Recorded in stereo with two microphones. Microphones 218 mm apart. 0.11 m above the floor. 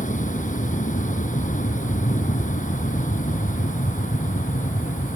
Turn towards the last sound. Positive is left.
turn(degrees=35)  # may be behind; listen again after turning